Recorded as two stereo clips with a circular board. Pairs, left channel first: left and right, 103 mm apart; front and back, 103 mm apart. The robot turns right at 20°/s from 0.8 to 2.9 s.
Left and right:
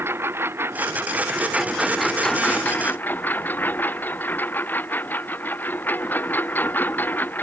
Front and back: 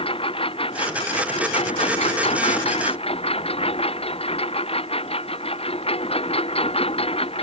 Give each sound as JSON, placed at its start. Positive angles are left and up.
{"t": 0.0, "sound": "a lawn mower", "azimuth_deg": -25}